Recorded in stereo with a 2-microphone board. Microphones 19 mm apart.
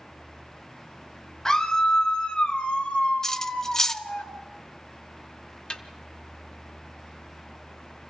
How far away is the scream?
About 1.3 m.